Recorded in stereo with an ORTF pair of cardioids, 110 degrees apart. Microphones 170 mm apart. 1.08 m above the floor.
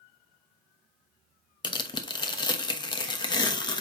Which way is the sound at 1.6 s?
25° left.